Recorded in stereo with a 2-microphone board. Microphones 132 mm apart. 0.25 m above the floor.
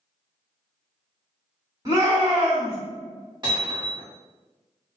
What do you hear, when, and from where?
1.9 s a shout: 35° right (ahead or behind), 1.7 m
3.4 s hammering: 35° right (ahead or behind), 1.6 m